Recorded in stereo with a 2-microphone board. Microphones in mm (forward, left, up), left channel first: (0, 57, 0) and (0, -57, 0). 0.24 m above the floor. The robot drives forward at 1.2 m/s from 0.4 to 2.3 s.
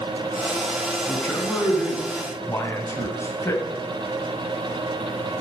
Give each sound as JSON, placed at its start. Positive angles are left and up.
{"t": 1.1, "sound": "a man speaking", "side_deg": 15, "distance_m": 2.5}